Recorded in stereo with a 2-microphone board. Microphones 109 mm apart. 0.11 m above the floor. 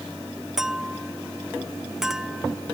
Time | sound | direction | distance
0.6 | a clink | 5° right (ahead or behind) | ?